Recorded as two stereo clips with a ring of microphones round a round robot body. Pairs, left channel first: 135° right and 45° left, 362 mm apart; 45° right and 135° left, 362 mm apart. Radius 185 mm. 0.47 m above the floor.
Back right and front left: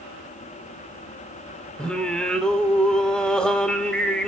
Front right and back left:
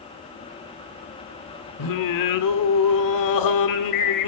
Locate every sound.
1.8 s singing: 50° right, 1.4 m